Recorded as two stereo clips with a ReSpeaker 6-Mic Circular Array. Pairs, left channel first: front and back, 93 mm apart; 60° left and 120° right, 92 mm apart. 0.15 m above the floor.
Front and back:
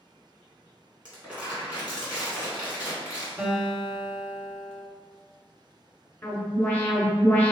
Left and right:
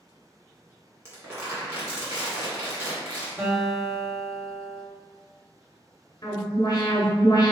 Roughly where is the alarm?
Ahead left.